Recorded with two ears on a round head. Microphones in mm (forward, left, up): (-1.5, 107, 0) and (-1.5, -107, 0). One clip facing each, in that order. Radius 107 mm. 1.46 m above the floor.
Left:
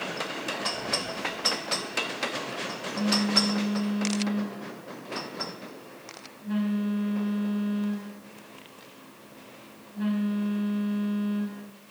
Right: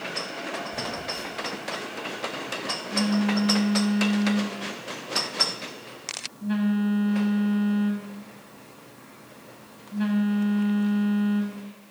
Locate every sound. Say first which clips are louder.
0.7 s a phone buzzing: even; 70° right (ahead or behind), 7.5 m